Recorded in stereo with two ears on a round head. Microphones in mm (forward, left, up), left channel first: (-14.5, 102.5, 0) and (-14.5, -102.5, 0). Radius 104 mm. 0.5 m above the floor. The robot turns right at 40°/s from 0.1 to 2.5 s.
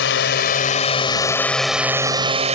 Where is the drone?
115° left; by 2.5 s 145° right.